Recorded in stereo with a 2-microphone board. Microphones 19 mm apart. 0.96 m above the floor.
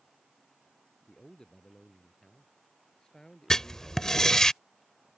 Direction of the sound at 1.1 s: 40° left (ahead or behind).